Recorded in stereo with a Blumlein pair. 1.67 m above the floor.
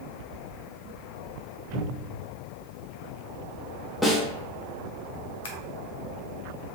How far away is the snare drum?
About 1.0 m.